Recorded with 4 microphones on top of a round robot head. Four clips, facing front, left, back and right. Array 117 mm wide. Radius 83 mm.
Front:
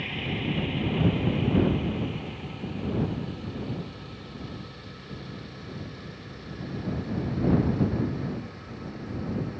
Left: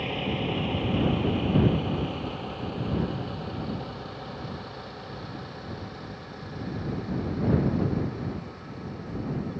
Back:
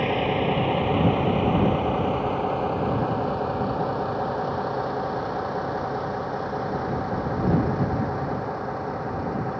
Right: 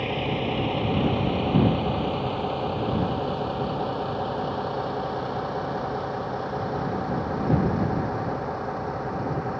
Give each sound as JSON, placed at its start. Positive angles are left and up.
{"t": 0.0, "sound": "a vehicle", "azimuth_deg": -170}